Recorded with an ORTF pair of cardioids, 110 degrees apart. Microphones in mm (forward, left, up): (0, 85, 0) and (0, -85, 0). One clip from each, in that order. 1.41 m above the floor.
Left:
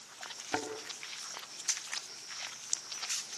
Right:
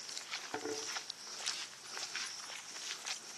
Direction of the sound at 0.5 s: 50° left.